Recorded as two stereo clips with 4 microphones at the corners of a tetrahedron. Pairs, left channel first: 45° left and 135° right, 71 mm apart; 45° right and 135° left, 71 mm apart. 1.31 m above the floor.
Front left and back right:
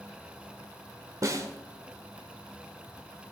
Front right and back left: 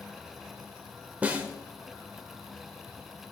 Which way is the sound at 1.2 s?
160° right.